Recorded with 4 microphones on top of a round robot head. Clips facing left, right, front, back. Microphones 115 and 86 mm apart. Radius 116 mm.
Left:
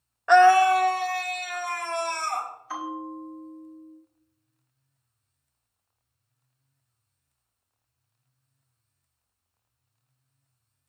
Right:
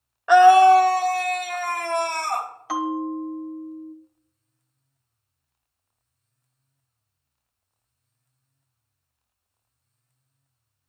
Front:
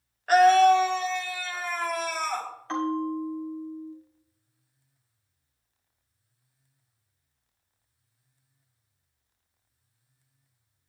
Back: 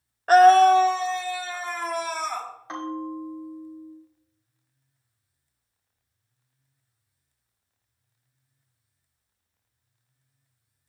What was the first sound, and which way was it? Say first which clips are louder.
A scream: right 4 dB, back 4 dB; 175° right.